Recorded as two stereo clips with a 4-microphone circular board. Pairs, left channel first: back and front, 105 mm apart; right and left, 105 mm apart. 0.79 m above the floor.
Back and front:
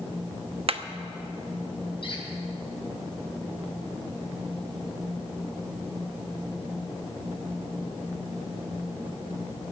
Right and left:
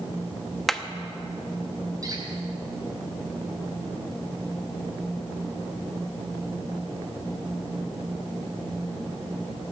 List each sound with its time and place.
0.7 s hammering: 5° right, 0.7 m
2.0 s a squeak: 145° left, 3 m